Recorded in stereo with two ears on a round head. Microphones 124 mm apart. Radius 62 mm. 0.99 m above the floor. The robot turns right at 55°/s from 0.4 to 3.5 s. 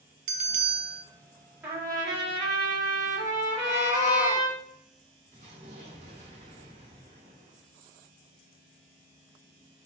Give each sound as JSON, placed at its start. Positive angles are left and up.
{"t": 0.3, "sound": "a bell", "azimuth_deg": -120, "distance_m": 0.8}
{"t": 1.6, "sound": "a trumpet", "azimuth_deg": -165, "distance_m": 2.0}
{"t": 3.5, "sound": "a cat meowing", "side_deg": 55, "distance_m": 0.5}
{"t": 5.3, "sound": "an explosion", "side_deg": -55, "distance_m": 1.9}